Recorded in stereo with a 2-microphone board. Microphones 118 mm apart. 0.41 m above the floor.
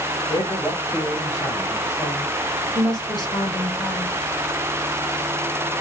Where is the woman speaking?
40° left (ahead or behind), 1.8 m.